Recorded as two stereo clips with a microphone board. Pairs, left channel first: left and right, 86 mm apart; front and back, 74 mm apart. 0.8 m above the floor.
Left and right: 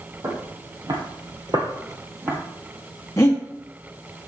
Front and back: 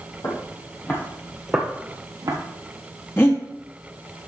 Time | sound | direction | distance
0.2 | footsteps | 45° right | 2 m
3.2 | breathing | 45° left | 1.3 m